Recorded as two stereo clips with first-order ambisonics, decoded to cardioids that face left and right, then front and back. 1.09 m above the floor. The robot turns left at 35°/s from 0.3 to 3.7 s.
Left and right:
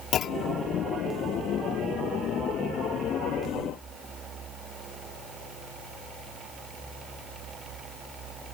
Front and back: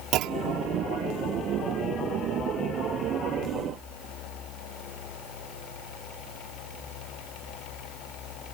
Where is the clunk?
140° left; by 0.7 s 130° left.